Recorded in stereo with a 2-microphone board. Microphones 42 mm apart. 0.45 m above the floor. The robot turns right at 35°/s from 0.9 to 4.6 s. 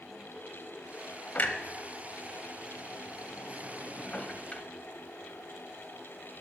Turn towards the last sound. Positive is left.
turn(degrees=25)  # may be behind; listen again after turning